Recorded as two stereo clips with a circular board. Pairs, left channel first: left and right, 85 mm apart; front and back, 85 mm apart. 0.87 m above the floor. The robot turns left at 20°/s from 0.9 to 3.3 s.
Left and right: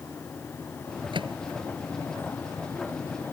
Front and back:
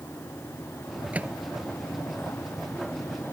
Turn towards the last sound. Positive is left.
turn(degrees=-150)